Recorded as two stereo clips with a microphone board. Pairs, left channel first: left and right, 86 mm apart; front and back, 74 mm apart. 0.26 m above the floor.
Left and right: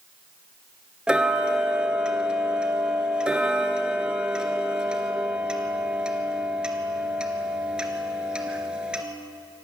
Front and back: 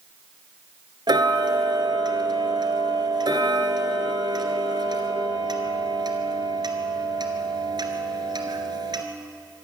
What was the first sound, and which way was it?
Ticking, 170° right.